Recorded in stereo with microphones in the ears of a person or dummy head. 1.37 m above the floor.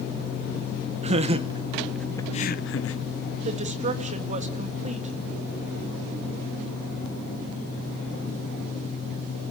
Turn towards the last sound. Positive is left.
turn(degrees=-35)  # may be behind; listen again after turning